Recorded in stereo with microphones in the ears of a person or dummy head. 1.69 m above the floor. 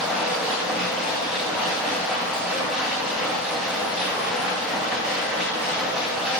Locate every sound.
0.0 s a machine running: 5° right (ahead or behind), 0.7 m